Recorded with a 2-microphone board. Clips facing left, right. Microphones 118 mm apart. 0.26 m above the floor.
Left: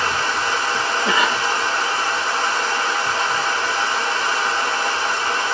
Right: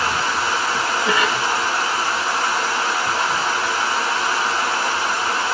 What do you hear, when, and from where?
0.0 s running water: 10° right (ahead or behind), 1.2 m
1.1 s a cough: 25° left (ahead or behind), 1.6 m